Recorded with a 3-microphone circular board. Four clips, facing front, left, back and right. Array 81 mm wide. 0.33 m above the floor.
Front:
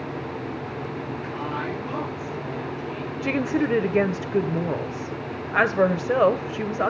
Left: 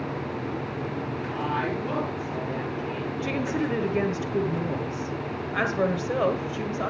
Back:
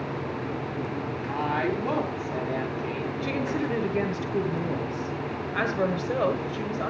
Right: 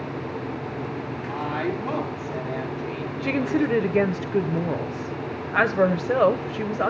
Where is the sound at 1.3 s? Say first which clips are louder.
Right 2 dB, back 4 dB; 150° right, 7 m.